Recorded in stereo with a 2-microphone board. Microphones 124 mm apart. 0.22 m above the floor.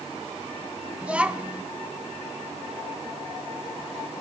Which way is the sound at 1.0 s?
10° right (ahead or behind).